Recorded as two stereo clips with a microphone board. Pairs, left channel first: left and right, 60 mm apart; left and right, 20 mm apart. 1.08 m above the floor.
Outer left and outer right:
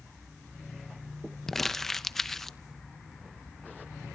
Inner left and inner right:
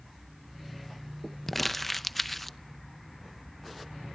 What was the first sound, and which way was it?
Crumpling, 5° left (ahead or behind).